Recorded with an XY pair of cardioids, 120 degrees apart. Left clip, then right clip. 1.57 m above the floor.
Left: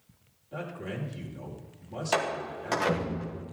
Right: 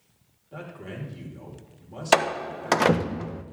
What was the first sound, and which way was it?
A man speaking, straight ahead.